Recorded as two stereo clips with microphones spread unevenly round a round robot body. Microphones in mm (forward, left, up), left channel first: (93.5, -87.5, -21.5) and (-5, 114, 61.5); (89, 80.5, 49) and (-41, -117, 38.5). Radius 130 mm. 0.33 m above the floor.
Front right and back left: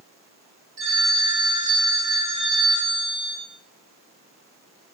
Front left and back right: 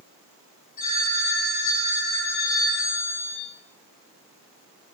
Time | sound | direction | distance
0.8 | a phone ringing | 50° left | 6 m